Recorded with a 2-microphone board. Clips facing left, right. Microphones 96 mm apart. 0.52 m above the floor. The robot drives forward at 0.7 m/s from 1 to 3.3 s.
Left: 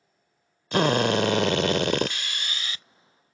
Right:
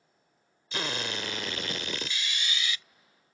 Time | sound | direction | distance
0.7 | a drill | 60° left (ahead or behind) | ?